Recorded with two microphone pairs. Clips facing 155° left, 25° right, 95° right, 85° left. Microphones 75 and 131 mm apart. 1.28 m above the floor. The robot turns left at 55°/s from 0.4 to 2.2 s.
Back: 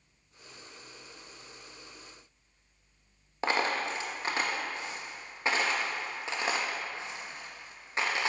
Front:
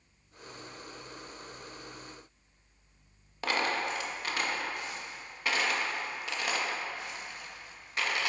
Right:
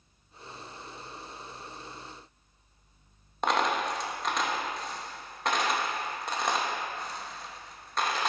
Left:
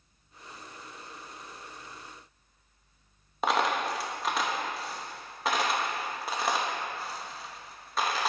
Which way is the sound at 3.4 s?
165° left.